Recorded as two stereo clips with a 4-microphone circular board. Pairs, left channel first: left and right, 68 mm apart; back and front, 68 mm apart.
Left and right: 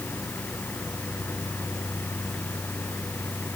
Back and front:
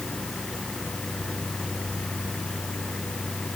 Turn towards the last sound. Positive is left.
No sound to turn to.